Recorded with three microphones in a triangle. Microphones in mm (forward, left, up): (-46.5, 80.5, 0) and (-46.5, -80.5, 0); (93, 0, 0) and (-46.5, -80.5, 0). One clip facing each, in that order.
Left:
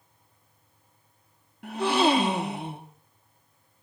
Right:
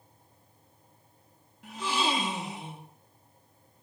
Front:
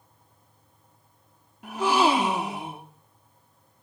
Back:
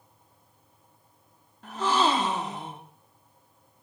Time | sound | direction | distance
1.6 | a gasp | 105° left | 1.0 m